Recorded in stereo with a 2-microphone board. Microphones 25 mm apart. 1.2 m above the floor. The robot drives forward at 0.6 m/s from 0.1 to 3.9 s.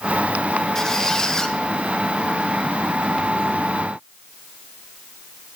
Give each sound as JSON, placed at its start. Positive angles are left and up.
{"t": 0.8, "sound": "a squeak", "side_deg": 30, "distance_m": 1.2}